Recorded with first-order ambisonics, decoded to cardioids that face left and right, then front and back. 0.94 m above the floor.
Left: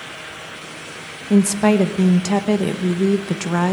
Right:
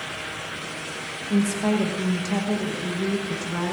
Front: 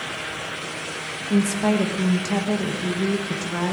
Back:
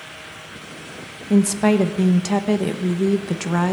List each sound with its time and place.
1.3 s a woman speaking: 120° left, 0.9 m